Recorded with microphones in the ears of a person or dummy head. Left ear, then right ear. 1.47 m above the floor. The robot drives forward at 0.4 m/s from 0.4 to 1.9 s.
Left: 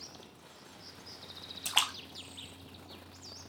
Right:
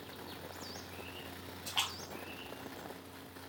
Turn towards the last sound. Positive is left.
turn(degrees=60)  # may be behind; listen again after turning